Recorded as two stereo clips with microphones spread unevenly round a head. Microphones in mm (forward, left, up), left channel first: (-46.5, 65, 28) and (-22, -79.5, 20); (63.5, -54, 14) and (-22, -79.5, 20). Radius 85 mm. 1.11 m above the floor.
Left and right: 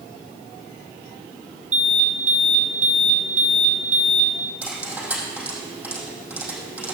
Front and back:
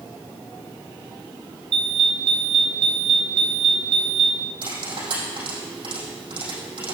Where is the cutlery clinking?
160° right, 5 m.